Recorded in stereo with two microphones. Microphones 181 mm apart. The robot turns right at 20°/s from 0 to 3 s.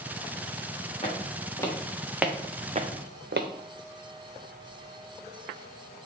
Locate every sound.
1.0 s footsteps: 35° left (ahead or behind), 2 m; by 3.5 s 80° right, 0.7 m